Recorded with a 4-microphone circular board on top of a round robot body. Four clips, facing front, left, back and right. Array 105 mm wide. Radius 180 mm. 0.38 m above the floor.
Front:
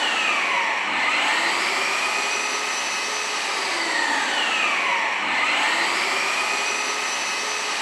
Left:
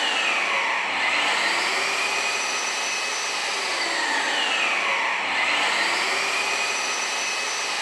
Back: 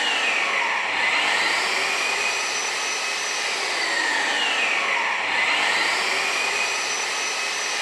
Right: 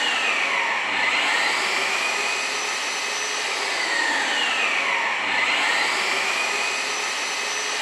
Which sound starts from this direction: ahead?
An engine running, at 0.0 s.